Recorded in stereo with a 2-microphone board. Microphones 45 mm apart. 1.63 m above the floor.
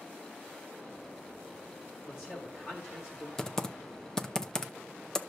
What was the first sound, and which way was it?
A man speaking, 40° left (ahead or behind).